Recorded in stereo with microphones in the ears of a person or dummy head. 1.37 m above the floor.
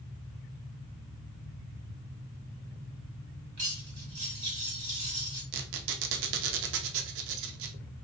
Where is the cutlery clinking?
40° right (ahead or behind), 2.5 m.